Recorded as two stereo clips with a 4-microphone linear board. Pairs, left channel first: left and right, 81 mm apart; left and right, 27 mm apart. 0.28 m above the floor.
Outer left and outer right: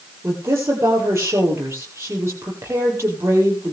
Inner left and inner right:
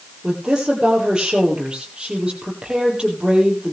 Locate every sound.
0.2 s a woman speaking: 30° right (ahead or behind), 7 m